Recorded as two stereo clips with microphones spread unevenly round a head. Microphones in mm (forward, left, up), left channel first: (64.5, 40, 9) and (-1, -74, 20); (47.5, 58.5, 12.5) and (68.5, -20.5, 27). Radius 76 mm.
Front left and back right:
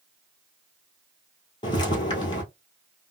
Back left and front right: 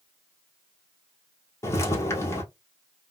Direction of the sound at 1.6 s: 85° left.